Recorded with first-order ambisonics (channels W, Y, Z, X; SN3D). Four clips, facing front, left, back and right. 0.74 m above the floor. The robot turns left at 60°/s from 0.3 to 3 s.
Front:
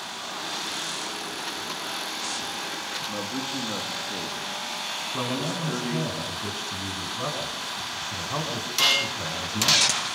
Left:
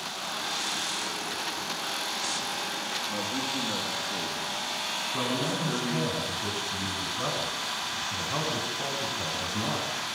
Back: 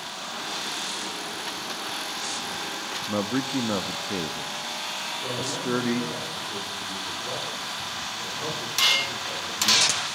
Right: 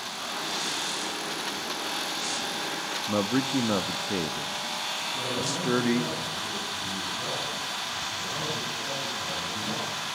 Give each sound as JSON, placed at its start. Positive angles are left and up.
{"t": 3.1, "sound": "a man speaking", "azimuth_deg": -130, "distance_m": 1.1}
{"t": 5.1, "sound": "a man speaking", "azimuth_deg": 30, "distance_m": 7.5}